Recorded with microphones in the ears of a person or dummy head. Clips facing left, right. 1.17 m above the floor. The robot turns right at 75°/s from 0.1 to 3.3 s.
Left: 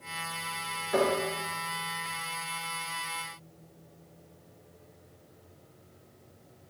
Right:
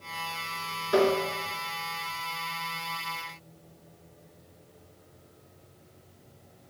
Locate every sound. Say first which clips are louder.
0.9 s tapping: right 4 dB; 70° right (ahead or behind), 3 m; by 1.1 s 60° right (ahead or behind), 3 m